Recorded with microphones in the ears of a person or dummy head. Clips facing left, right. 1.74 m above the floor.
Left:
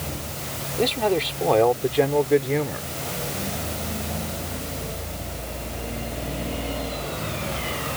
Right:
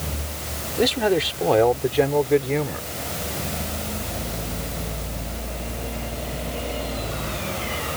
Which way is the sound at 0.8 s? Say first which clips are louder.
Right 2 dB; 15° right (ahead or behind).